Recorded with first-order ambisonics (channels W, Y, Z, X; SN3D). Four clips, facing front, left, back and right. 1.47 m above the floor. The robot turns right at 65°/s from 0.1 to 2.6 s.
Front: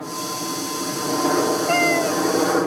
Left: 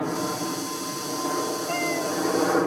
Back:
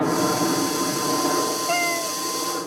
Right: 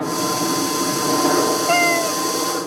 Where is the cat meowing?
80° right; by 2.2 s 45° right.